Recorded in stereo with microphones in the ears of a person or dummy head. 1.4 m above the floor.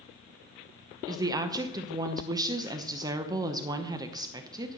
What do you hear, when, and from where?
1.1 s a woman speaking: 20° right (ahead or behind), 0.8 m